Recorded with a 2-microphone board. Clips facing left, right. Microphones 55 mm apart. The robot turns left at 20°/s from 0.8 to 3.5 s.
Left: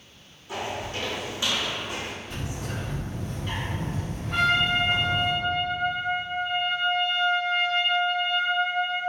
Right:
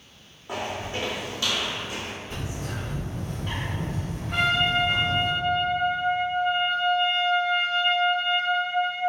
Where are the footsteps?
50° right (ahead or behind), 1.2 m; by 2.1 s 65° left (ahead or behind), 1.4 m.